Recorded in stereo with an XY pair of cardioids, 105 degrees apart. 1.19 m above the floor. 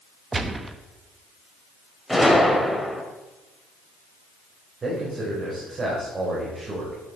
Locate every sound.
0.3 s a gunshot: 25° right, 1.0 m
2.1 s a gunshot: straight ahead, 2 m
4.8 s a man speaking: 40° right, 4.5 m